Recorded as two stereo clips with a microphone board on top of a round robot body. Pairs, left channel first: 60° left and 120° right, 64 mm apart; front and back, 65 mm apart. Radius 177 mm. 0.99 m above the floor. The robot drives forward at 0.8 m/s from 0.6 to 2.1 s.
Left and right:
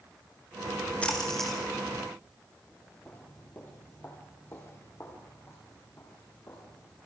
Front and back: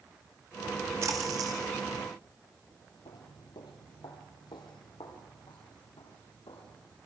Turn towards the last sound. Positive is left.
turn(degrees=5)